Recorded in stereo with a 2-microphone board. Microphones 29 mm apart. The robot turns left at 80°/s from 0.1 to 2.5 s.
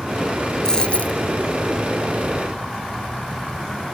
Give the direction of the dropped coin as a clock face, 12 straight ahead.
7 o'clock.